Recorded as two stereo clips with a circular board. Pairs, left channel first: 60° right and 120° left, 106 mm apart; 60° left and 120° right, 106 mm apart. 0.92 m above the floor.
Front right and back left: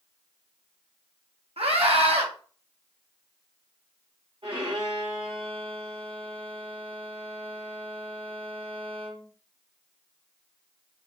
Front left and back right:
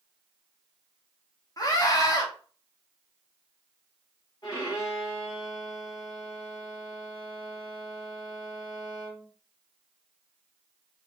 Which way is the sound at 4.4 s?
105° left.